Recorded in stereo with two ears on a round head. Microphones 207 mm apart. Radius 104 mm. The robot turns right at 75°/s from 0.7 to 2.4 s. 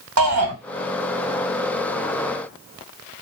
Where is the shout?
70° right (ahead or behind), 1.2 m.